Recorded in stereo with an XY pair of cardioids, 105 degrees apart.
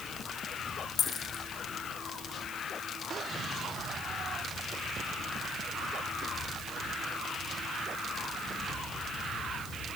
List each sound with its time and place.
1.0 s a dropped coin: 50° left, 1.7 m